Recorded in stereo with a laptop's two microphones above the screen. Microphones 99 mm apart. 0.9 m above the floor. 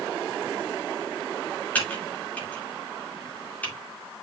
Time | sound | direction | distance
1.8 | typing on a keyboard | 15° left (ahead or behind) | 1.9 m